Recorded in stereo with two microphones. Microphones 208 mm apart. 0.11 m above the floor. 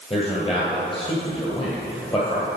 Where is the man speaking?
25° left (ahead or behind), 1.8 m.